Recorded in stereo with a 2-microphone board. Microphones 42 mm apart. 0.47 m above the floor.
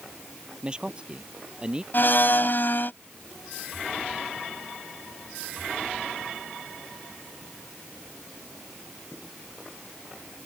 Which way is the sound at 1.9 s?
55° left (ahead or behind).